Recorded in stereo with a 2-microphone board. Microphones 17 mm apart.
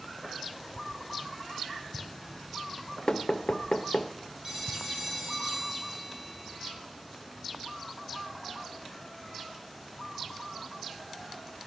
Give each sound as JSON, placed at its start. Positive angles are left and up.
{"t": 3.1, "sound": "knocking", "side_deg": 50, "distance_m": 0.5}
{"t": 4.4, "sound": "a phone ringing", "side_deg": -35, "distance_m": 4.0}